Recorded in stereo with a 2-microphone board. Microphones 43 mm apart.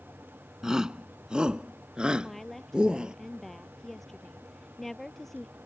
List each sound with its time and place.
0.6 s a shout: 15° right (ahead or behind); by 3.1 s 20° right (ahead or behind)
2.2 s a woman speaking: 5° left (ahead or behind)